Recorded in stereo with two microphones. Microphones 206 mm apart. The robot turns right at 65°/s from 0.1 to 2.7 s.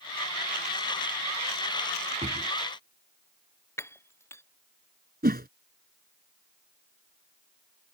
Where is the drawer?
35° right (ahead or behind); by 2.5 s 30° right (ahead or behind).